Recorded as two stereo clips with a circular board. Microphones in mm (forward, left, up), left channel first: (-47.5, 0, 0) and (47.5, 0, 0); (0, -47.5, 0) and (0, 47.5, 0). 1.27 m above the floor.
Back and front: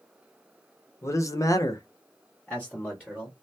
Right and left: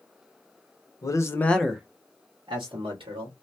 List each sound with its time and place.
1.0 s a man speaking: 130° right, 0.7 m; by 3.3 s 95° left, 1.3 m